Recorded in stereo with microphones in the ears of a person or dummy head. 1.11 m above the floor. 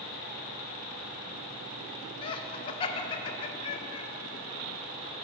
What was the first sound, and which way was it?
Laughter, 30° left (ahead or behind).